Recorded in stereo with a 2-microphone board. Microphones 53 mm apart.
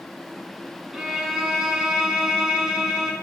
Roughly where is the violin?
Centre.